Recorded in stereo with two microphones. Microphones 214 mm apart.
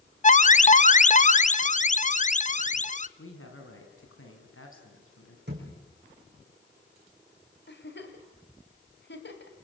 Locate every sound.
0.2 s an alarm: 35° left (ahead or behind), 0.6 m
3.2 s a man speaking: 75° left (ahead or behind), 5.5 m
5.5 s a thud: 50° right (ahead or behind), 7 m
7.7 s a giggle: 55° left (ahead or behind), 3 m